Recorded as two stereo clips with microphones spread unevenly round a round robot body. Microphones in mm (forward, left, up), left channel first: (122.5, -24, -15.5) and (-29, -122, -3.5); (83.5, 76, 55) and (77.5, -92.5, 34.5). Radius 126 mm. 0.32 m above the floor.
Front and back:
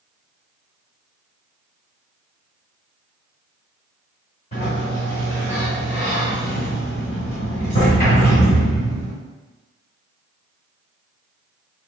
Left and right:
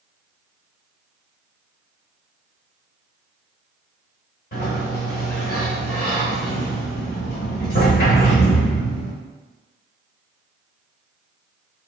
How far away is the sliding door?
About 1.4 m.